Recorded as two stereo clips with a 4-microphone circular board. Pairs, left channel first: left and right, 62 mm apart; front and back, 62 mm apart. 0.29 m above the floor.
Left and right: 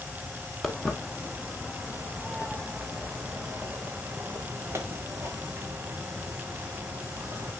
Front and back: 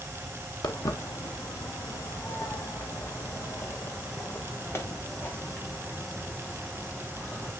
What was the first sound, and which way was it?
Footsteps, straight ahead.